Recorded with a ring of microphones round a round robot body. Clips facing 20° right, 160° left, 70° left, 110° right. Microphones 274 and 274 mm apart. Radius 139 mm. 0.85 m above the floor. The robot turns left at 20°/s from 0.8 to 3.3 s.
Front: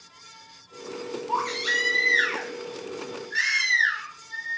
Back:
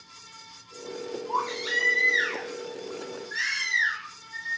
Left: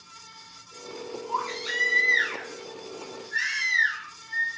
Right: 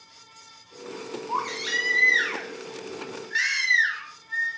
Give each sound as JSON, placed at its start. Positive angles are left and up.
{"t": 1.3, "sound": "a baby crying", "azimuth_deg": -60, "distance_m": 0.9}